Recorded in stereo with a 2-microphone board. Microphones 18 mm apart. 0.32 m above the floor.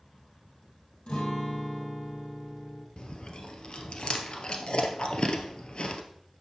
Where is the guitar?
65° left (ahead or behind), 3 m.